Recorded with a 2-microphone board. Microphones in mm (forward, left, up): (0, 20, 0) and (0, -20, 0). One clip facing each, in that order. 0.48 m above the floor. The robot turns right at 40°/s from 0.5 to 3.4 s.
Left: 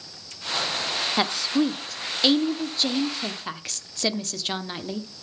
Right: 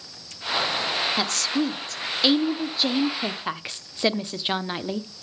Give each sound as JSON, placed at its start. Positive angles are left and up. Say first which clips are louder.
{"t": 1.2, "sound": "a woman speaking", "louder": "left 2 dB", "side_deg": 20, "distance_m": 0.7}